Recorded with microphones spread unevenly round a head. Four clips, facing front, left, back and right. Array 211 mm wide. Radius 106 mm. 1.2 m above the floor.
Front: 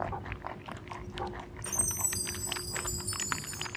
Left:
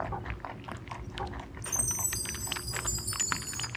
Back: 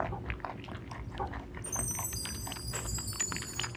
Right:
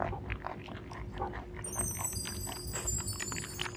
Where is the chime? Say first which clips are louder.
Left 1 dB, front 1 dB; 40° left, 9 m.